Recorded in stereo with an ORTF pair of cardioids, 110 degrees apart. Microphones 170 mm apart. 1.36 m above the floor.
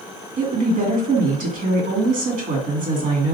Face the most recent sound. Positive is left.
turn(degrees=-60)